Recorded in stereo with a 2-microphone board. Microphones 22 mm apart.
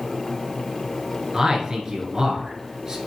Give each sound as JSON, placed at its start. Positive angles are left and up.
{"t": 1.3, "sound": "a man speaking", "side_deg": -30, "distance_m": 1.5}